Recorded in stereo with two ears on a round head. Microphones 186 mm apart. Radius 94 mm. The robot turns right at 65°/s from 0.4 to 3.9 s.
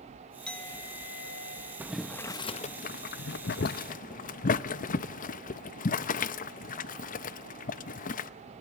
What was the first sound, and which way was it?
A clink, 5° left.